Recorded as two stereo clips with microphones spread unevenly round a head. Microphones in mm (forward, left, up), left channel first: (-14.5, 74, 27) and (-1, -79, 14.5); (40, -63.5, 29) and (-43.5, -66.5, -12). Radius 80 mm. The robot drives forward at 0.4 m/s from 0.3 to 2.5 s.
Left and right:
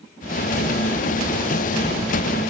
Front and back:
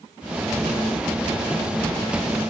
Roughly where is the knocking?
No knocking in this recording.